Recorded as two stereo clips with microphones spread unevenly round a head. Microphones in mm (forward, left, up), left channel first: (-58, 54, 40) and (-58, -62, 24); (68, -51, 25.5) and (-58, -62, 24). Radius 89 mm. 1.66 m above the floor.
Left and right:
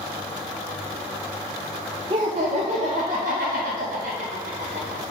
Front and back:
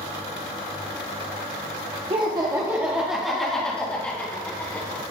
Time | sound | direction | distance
2.1 | laughter | 135° right | 1.0 m